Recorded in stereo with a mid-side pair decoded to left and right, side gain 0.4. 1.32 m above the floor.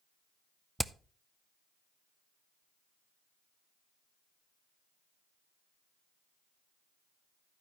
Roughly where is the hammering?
Ahead.